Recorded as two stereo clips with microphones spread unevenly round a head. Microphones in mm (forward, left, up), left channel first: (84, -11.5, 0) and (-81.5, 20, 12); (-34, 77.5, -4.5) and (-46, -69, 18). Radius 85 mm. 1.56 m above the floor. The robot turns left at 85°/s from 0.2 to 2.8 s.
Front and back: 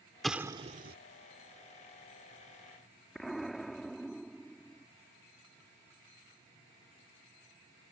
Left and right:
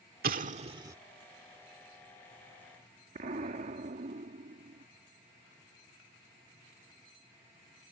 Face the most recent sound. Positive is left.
turn(degrees=-105)